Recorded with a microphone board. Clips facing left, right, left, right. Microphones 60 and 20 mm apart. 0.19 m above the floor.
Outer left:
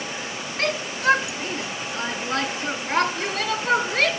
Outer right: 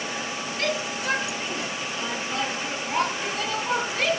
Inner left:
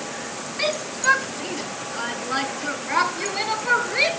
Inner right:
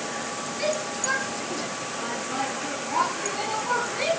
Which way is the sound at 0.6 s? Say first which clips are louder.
Outer left 4 dB, inner left 5 dB; 50° left (ahead or behind).